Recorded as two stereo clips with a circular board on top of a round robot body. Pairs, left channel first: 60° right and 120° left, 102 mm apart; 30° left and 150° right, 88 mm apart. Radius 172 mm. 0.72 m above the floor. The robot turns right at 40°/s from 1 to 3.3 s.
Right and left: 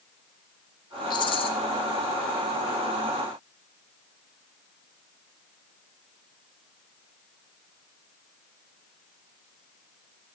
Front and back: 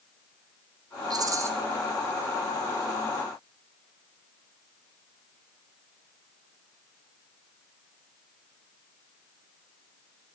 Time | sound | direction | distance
1.1 | a rattle | 105° right | 0.7 m